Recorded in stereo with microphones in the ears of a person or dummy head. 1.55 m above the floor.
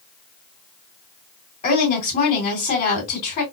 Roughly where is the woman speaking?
Left.